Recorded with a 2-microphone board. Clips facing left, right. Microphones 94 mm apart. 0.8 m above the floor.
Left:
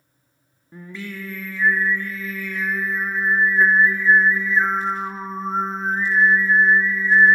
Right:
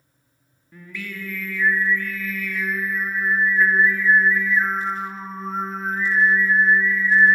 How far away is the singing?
About 1.6 m.